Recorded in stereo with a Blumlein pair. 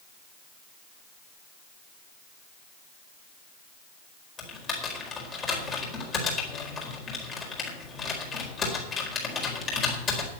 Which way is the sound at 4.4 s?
20° left.